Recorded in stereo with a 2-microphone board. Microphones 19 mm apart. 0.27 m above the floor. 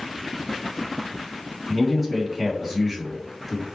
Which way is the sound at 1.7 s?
5° right (ahead or behind).